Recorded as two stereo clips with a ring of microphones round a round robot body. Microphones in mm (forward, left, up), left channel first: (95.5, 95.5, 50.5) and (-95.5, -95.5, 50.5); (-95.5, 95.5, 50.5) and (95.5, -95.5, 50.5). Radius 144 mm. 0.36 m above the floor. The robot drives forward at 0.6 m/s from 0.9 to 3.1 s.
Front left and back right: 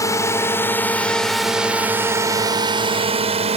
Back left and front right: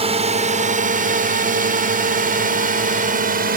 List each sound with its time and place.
0.0 s a drone: 15° right; by 3.6 s 80° right